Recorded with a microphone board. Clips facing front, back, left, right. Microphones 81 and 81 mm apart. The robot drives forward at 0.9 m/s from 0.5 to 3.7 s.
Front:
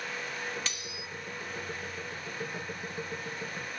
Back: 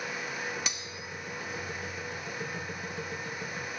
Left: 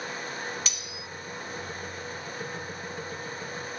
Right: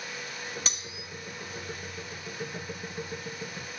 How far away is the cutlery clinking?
About 0.6 m.